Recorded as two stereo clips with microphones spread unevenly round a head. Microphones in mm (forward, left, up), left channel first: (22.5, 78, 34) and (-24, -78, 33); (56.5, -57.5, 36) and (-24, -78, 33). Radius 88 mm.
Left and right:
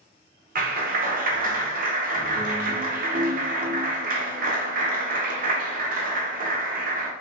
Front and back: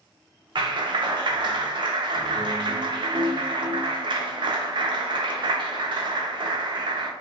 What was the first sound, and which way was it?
A clap, 140° right.